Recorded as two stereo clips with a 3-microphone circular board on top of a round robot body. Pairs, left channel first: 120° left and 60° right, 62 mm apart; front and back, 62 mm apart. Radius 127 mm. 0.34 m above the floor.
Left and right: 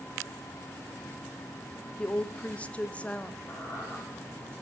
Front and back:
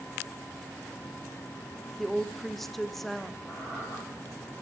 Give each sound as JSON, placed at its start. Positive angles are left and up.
{"t": 2.0, "sound": "a woman speaking", "azimuth_deg": 80, "distance_m": 0.9}
{"t": 3.5, "sound": "a squeak", "azimuth_deg": 60, "distance_m": 6.5}